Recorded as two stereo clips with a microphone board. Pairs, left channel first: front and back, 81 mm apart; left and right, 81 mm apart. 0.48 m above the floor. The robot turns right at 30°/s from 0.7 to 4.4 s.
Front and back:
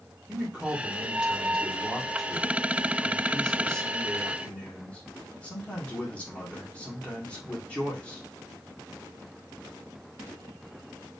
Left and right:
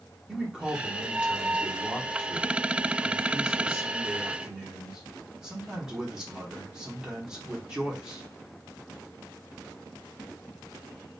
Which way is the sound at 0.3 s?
140° right.